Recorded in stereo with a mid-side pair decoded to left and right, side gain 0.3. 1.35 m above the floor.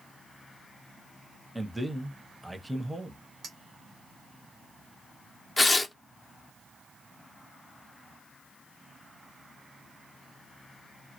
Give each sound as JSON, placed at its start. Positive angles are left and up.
{"t": 1.6, "sound": "a man speaking", "azimuth_deg": -10, "distance_m": 0.7}
{"t": 3.4, "sound": "a clink", "azimuth_deg": -70, "distance_m": 1.0}
{"t": 5.6, "sound": "tearing paper", "azimuth_deg": 35, "distance_m": 0.6}